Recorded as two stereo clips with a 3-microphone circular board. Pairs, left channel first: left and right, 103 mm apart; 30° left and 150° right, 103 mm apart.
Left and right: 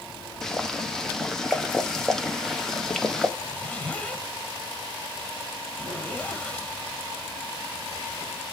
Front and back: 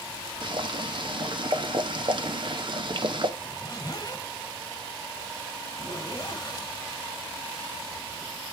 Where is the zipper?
25° left, 1.7 m.